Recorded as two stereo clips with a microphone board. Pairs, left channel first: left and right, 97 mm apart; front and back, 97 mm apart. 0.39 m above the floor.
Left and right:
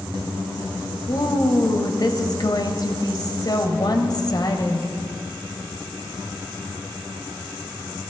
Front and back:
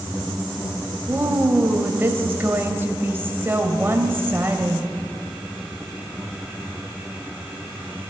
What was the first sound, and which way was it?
A woman speaking, 120° left.